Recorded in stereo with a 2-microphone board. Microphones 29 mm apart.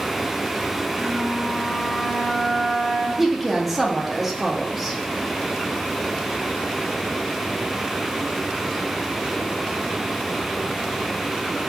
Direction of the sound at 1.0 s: 35° right (ahead or behind).